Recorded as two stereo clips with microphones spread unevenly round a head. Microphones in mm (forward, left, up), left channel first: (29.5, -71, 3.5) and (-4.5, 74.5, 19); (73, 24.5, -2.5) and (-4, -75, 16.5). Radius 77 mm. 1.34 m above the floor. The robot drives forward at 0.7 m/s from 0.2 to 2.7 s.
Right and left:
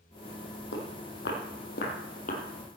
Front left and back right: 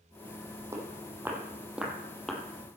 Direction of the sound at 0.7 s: 65° right.